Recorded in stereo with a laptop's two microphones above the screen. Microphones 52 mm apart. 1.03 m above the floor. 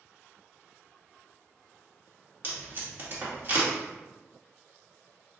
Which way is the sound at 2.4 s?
40° right (ahead or behind).